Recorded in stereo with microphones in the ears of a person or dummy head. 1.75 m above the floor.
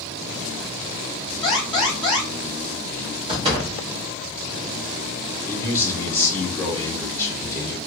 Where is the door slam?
20° right (ahead or behind), 0.7 m.